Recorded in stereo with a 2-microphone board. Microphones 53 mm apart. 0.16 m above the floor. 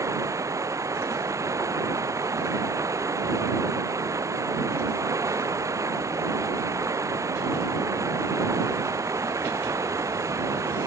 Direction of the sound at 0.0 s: 80° right.